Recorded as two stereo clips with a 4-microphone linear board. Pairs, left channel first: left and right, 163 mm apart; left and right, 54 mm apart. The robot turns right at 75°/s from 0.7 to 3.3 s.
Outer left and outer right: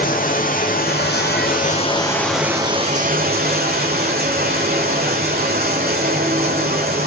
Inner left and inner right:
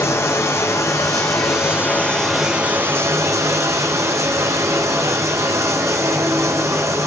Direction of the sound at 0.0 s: 60° left.